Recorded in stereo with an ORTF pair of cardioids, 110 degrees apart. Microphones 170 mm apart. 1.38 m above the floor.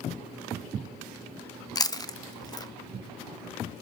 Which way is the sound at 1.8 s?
25° left.